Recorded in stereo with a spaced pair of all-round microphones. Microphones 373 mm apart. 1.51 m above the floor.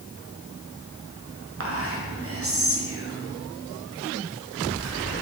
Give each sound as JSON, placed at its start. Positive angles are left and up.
{"t": 1.6, "sound": "whispering", "side_deg": -40, "distance_m": 0.6}